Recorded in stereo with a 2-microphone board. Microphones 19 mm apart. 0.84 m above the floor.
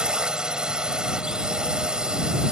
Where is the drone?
40° right (ahead or behind).